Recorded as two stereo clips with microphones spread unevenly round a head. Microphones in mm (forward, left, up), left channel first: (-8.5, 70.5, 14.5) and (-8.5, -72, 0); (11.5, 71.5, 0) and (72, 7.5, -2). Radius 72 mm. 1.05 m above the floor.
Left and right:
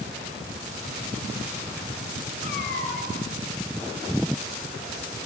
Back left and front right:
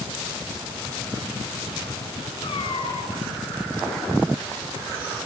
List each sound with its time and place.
2.4 s a cat meowing: 105° left, 9.5 m